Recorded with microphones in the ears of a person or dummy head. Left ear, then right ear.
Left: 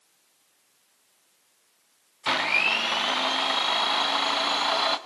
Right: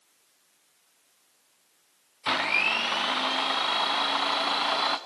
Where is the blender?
5° left (ahead or behind), 0.9 m.